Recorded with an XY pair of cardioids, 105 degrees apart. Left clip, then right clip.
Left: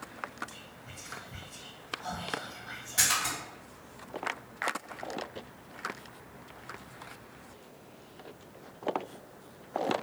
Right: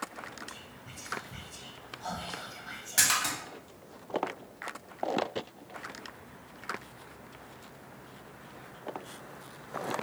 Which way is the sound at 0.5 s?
10° right.